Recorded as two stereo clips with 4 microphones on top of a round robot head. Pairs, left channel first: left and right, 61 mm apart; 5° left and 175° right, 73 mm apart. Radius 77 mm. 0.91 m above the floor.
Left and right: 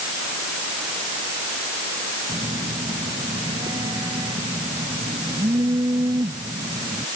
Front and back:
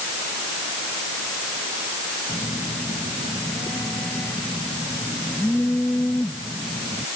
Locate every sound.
2.3 s a phone buzzing: 70° right